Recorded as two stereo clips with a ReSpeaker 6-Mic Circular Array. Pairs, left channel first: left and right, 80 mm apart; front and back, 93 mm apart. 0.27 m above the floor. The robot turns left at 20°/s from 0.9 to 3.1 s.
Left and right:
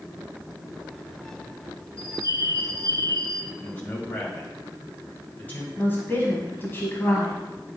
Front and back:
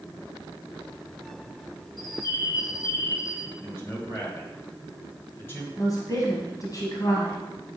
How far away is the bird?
About 1.2 m.